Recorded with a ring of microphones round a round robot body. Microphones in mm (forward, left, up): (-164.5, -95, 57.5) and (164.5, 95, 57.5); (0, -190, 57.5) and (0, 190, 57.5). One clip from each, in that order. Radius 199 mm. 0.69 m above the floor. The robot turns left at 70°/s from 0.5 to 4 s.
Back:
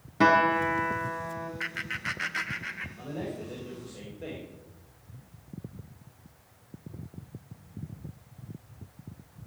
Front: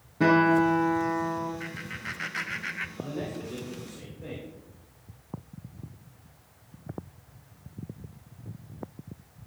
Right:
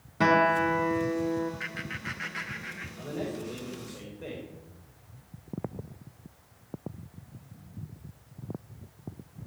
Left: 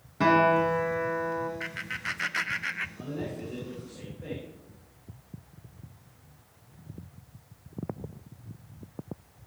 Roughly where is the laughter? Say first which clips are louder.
Back 4 dB, left 2 dB; behind.